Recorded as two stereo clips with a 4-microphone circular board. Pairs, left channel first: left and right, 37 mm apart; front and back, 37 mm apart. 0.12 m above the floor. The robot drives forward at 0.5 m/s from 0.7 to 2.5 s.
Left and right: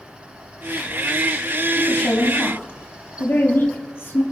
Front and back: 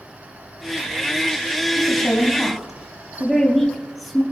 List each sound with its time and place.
1.8 s a woman speaking: 85° left, 3.5 m; by 4.2 s 90° left, 3.5 m